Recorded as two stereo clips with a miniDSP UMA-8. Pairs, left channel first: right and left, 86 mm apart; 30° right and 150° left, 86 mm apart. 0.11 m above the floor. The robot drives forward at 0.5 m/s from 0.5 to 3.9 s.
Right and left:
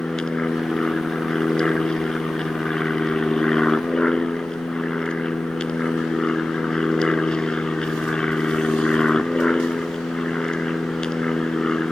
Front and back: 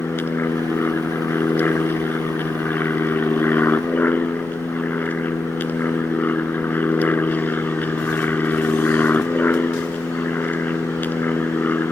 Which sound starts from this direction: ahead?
An aircraft, at 0.0 s.